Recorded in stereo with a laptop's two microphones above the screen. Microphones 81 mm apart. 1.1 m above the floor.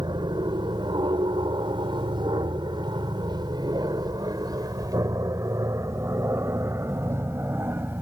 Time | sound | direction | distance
0.0 | an aircraft | 70° right (ahead or behind) | ?